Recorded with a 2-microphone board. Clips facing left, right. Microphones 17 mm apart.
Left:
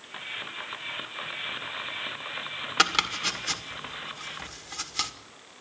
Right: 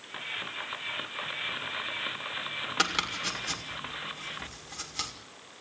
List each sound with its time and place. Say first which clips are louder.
2.8 s chopping: left 5 dB; 25° left (ahead or behind), 2.0 m